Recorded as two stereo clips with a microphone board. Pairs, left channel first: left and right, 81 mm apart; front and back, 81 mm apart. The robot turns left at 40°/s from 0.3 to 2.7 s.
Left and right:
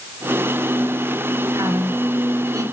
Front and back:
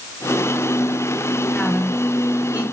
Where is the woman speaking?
70° right, 2.5 m; by 2.6 s 115° right, 2.5 m.